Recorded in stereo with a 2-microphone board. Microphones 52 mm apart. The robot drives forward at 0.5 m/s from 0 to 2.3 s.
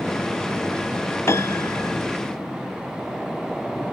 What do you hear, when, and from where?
1.3 s a piano: 60° left (ahead or behind); by 2.0 s 65° left (ahead or behind)